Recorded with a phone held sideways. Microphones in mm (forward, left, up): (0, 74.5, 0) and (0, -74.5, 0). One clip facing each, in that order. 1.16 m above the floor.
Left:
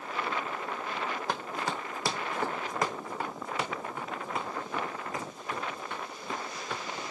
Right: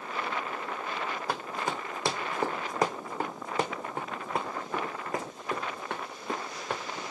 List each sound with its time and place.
1.3 s running footsteps: 10° right (ahead or behind), 2.5 m; by 6.8 s 65° right (ahead or behind), 5.5 m